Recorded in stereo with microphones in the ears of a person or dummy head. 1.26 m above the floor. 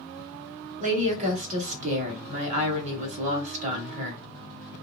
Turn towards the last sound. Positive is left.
turn(degrees=-40)  # may be behind; listen again after turning